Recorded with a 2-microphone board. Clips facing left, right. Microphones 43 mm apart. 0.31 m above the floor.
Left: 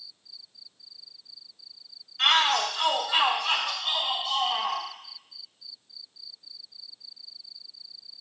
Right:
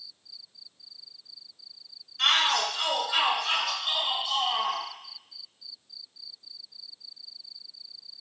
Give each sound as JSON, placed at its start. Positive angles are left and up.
{"t": 2.2, "sound": "a shout", "side_deg": 10, "distance_m": 1.1}